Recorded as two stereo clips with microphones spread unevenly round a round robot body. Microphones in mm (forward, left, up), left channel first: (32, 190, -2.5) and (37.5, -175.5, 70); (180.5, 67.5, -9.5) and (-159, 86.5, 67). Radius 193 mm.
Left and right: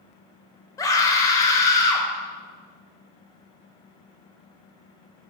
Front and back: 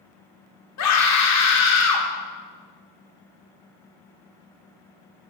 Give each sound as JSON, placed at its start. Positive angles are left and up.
{"t": 0.8, "sound": "a scream", "azimuth_deg": 15, "distance_m": 0.8}